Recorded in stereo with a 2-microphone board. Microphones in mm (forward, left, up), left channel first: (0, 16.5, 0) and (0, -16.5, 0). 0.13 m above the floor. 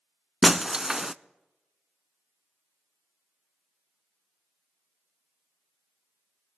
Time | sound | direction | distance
0.4 | breaking glass | 20° right (ahead or behind) | 0.5 m